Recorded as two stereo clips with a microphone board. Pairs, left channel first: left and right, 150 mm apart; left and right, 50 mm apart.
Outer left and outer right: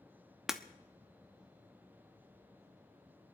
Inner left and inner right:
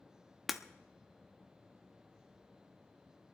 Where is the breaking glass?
5° right (ahead or behind), 1.0 m.